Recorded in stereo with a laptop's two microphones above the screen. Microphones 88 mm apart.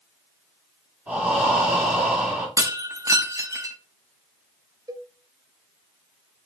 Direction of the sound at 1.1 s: 15° right (ahead or behind).